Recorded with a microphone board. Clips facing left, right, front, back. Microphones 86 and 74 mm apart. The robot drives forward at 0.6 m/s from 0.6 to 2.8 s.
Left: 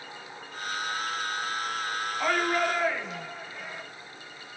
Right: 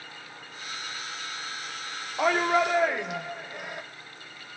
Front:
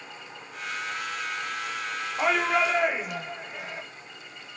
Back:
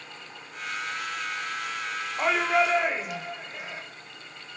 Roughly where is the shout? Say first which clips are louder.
Right 4 dB, even; right.